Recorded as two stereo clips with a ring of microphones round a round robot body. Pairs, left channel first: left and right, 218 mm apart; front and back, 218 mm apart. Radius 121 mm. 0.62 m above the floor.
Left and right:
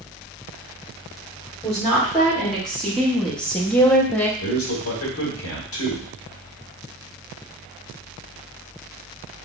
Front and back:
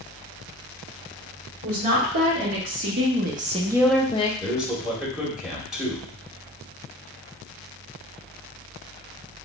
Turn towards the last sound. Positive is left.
turn(degrees=95)